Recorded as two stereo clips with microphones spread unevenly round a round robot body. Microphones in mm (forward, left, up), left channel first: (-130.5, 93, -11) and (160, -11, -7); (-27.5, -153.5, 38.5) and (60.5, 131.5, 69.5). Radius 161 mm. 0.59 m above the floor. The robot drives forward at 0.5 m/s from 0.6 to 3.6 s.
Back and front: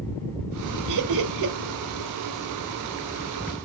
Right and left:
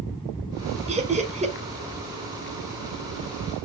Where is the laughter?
5° left, 2.5 m.